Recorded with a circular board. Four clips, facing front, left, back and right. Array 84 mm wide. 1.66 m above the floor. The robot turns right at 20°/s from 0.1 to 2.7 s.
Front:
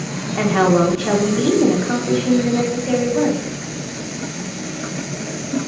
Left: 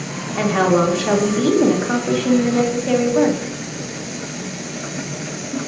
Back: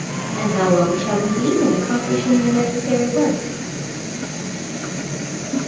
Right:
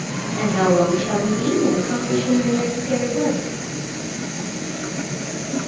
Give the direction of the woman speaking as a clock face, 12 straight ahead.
11 o'clock.